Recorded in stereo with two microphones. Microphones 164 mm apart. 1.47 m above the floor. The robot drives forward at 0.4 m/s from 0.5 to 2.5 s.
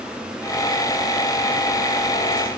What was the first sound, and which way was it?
Only background noise.